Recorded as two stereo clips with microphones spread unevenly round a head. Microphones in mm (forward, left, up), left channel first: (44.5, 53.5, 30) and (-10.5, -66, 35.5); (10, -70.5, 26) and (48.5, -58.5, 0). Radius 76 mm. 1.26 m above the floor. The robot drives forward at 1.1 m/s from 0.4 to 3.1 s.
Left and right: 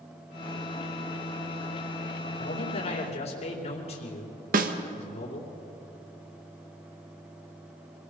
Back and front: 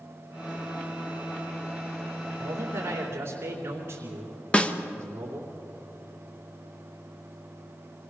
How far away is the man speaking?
About 4 m.